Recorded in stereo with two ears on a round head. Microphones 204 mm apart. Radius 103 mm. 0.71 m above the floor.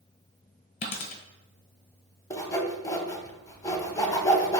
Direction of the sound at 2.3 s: 15° left (ahead or behind).